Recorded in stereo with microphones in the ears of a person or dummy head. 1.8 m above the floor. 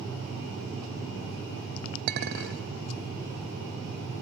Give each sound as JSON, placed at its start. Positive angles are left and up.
{"t": 2.1, "sound": "a clink", "side_deg": -55, "distance_m": 1.7}